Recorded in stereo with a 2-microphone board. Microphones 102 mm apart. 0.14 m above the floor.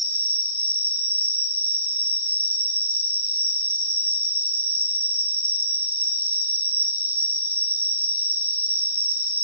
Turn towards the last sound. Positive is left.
turn(degrees=-20)  # may be behind; listen again after turning